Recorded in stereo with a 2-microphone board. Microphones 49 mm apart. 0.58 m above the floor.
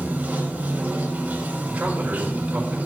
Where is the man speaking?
30° right (ahead or behind), 2.5 m.